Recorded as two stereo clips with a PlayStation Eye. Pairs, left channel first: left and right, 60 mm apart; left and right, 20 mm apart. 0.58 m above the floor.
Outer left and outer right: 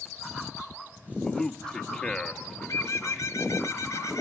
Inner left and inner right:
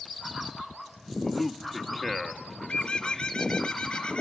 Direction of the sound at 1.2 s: 10° left (ahead or behind).